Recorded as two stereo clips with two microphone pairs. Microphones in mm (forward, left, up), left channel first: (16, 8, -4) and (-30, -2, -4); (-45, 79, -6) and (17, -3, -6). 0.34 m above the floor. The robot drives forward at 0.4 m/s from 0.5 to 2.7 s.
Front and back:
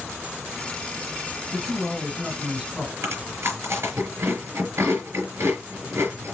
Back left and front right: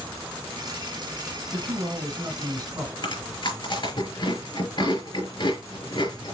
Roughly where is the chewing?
Behind.